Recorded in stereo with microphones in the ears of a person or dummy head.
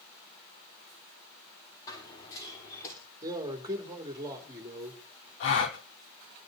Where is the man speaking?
25° right (ahead or behind), 3 m.